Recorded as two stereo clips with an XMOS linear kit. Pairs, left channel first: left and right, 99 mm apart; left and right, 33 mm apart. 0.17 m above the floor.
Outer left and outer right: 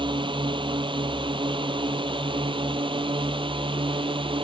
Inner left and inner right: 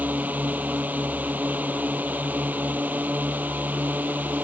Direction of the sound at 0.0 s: 55° right (ahead or behind).